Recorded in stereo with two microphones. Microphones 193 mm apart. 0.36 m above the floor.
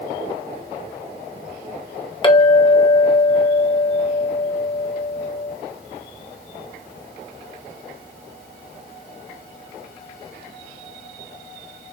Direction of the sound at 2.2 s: 25° left (ahead or behind).